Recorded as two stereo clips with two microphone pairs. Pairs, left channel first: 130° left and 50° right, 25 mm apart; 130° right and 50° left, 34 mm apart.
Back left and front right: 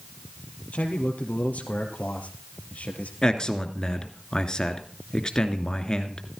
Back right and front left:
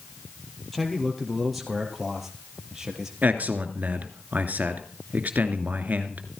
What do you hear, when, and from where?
0.7 s a man speaking: 145° left, 4.5 m; by 3.1 s 125° left, 4 m
3.2 s a man speaking: 75° left, 2.5 m